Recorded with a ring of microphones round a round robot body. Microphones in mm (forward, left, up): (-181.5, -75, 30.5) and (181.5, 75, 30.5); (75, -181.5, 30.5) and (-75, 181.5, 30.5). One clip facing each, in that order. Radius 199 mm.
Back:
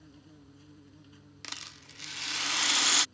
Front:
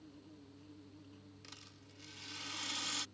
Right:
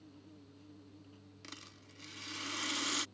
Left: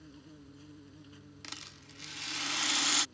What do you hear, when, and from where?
0.0 s an insect: 155° left
1.4 s a rattle: 170° right